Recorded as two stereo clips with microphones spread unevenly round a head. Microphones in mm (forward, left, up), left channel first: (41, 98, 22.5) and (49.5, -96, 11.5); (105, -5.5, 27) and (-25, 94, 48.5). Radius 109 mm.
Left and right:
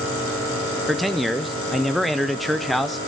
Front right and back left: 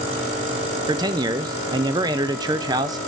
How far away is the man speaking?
About 0.5 m.